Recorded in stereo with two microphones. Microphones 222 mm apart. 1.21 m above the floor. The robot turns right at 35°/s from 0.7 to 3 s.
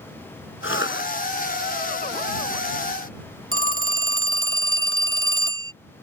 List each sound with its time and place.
0.6 s a cough: 60° left (ahead or behind); by 1.1 s 50° left (ahead or behind)
3.5 s a phone ringing: 65° right (ahead or behind)